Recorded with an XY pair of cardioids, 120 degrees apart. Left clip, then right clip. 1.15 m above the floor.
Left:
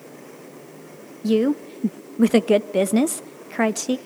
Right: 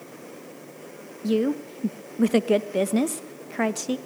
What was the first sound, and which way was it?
A woman speaking, 20° left.